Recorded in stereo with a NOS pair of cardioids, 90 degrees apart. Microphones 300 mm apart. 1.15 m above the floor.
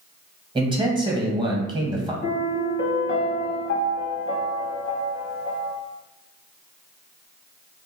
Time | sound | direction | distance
0.6 | a man speaking | 15° right | 1.1 m
2.2 | a piano | 45° left | 0.8 m